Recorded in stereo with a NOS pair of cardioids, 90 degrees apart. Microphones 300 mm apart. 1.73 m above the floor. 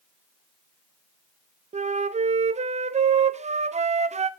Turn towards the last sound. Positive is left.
turn(degrees=-25)